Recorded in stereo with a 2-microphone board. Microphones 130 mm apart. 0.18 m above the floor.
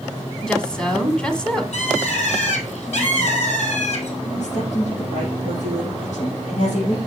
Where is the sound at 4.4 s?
70° left (ahead or behind), 5 m.